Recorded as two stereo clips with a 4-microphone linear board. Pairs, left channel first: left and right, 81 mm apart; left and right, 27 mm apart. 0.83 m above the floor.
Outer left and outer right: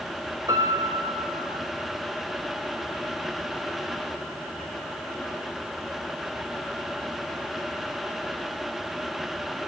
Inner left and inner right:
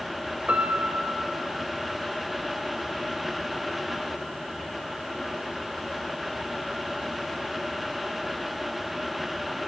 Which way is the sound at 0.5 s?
50° right (ahead or behind).